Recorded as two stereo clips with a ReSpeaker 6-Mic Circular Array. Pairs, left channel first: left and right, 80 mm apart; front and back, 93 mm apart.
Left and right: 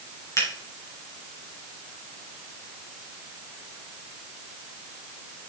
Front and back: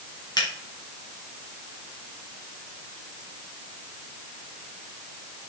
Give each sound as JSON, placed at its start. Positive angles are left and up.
{"t": 0.4, "sound": "a finger snap", "azimuth_deg": 40, "distance_m": 3.0}